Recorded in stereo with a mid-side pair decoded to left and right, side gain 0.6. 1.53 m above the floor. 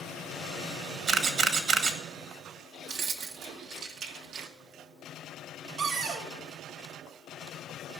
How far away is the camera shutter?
About 1.6 m.